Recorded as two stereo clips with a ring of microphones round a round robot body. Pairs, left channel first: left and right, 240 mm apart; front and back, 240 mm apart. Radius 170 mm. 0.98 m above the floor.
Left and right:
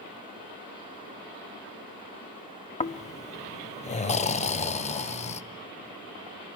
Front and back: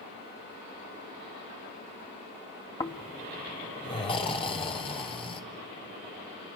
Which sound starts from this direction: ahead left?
Snoring, at 2.8 s.